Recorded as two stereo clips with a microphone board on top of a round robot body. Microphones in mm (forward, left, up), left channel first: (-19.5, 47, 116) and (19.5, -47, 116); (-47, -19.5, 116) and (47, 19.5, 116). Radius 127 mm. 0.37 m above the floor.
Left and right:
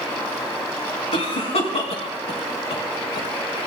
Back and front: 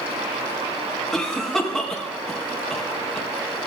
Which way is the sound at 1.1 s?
120° left.